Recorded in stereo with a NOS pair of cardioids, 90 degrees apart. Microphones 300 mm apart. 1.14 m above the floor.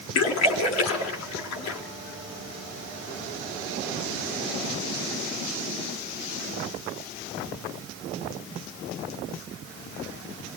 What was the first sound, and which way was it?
A splash, 65° left.